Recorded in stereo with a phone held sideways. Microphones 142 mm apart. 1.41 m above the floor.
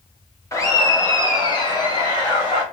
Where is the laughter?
20° left (ahead or behind), 1.3 m; by 2.6 s 35° left (ahead or behind), 2.5 m.